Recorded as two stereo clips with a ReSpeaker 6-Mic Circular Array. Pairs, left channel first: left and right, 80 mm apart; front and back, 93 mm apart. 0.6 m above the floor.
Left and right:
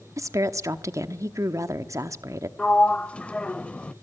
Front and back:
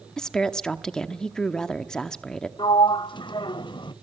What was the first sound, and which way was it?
A woman speaking, 80° right.